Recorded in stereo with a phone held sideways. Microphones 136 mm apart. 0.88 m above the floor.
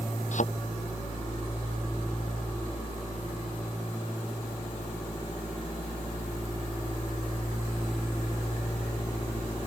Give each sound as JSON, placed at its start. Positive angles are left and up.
{"t": 0.3, "sound": "a thud", "side_deg": 65}